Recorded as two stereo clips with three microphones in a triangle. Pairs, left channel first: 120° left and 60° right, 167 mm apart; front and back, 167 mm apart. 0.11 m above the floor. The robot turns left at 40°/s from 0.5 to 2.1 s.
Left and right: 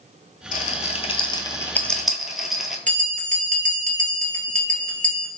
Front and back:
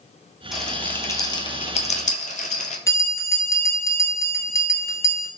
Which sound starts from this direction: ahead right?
A bell, at 2.9 s.